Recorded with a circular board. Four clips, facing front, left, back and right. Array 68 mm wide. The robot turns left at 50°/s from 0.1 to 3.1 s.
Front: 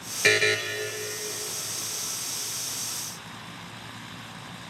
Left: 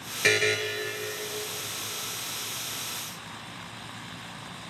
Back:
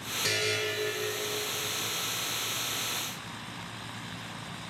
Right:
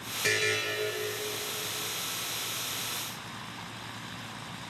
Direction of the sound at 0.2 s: 30° left.